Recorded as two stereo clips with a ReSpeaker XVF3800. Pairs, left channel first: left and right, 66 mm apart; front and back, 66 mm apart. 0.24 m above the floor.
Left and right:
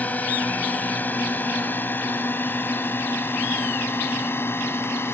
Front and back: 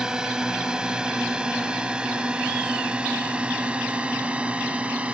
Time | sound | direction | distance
0.0 | a drone | 115° left | ?